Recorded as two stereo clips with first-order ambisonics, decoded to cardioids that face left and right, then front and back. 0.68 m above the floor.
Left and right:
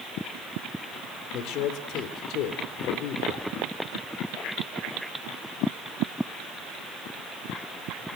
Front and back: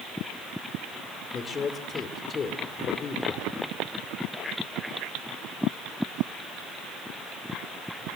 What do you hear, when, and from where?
1.3 s a man speaking: 65° left, 2.0 m